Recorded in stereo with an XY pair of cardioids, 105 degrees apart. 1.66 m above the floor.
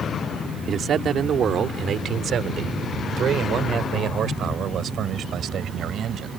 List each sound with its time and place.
0.7 s a man speaking: 55° right; by 6.3 s 60° right